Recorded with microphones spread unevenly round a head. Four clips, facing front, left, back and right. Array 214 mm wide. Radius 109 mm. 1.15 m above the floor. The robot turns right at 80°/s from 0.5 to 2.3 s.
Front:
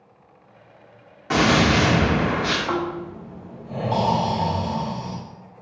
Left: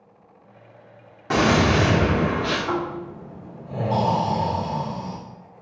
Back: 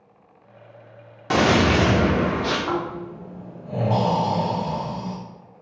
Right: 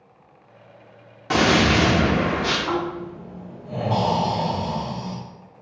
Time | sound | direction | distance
1.3 | a gunshot | 155° left | 0.7 m
2.7 | snoring | 150° right | 1.2 m